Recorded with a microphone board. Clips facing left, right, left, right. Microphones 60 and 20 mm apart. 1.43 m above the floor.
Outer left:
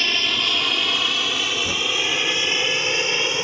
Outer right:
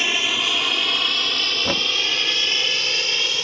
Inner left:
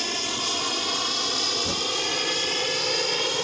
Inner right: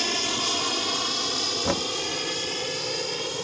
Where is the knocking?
45° right (ahead or behind).